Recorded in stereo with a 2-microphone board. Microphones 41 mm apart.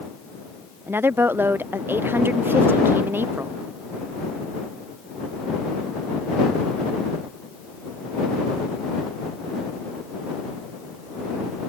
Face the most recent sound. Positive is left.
turn(degrees=-60)  # may be behind; listen again after turning